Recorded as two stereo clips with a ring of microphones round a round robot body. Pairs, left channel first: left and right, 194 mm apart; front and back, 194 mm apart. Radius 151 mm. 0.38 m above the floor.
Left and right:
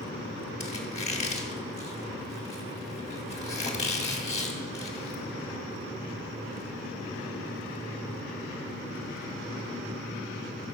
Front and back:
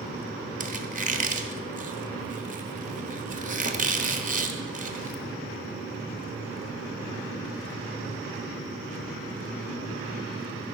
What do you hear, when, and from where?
0.6 s a squeak: 140° left, 1.3 m